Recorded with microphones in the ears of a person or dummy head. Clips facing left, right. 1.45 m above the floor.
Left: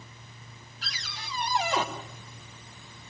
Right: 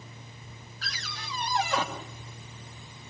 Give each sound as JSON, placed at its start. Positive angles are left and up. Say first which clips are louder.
{"t": 0.8, "sound": "a cupboard door", "louder": "right 1 dB", "side_deg": 15, "distance_m": 2.5}